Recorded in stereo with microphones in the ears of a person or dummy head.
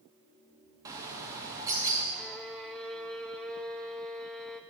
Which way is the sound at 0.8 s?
15° right (ahead or behind).